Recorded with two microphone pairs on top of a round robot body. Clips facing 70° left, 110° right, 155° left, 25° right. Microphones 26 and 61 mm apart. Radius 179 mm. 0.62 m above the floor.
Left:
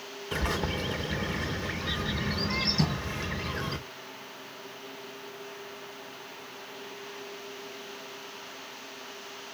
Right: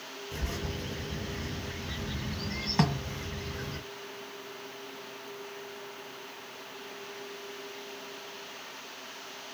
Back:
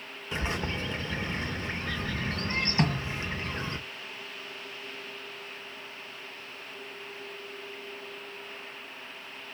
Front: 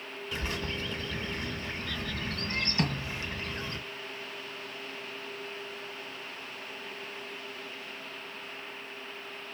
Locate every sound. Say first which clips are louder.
0.3 s a bird: left 8 dB, back 3 dB; 90° left, 0.8 m
2.8 s a snare drum: right 1 dB, back 3 dB; 135° right, 1.6 m